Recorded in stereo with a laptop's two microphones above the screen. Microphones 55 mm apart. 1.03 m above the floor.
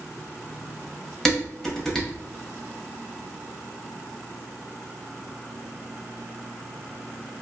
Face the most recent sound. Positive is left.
turn(degrees=10)  # may be behind; listen again after turning